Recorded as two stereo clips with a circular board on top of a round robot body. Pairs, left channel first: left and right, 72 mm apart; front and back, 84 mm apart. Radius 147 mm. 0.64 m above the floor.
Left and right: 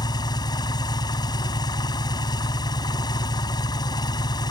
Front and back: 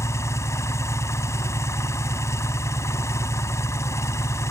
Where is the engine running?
60° left.